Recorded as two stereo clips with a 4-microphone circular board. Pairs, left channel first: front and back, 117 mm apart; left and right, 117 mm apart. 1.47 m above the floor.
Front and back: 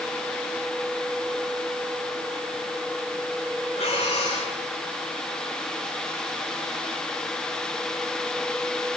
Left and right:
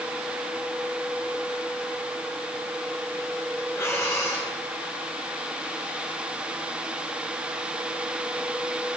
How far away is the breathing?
About 5 m.